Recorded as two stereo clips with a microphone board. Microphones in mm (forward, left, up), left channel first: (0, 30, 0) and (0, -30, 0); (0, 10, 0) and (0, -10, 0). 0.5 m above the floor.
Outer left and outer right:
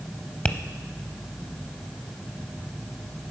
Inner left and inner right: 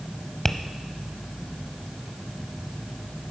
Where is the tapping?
25° left (ahead or behind), 0.7 m.